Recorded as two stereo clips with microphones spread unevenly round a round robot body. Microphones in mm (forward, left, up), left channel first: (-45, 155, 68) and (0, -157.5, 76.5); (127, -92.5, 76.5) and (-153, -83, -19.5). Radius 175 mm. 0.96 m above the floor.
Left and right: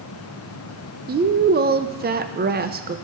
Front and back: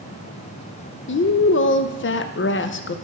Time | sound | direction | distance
1.1 | a woman speaking | 50° right | 0.7 m